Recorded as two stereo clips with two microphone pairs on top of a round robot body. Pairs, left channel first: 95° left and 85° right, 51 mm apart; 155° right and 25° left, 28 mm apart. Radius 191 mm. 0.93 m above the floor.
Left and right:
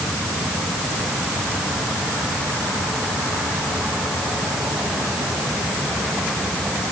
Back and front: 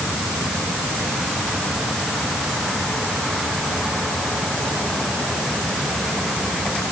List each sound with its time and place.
Only background noise.